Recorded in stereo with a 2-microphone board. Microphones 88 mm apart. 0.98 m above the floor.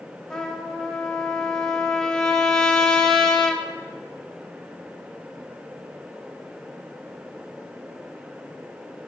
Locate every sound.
0.3 s a trumpet: 5° left (ahead or behind), 0.7 m